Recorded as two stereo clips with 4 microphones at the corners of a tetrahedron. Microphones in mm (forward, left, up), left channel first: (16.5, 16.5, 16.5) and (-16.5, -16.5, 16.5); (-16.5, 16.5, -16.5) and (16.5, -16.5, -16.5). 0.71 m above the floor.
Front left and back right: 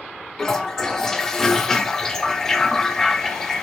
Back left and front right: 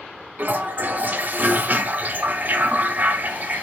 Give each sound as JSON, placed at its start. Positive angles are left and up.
{"t": 0.4, "sound": "a toilet flushing", "azimuth_deg": -30, "distance_m": 0.5}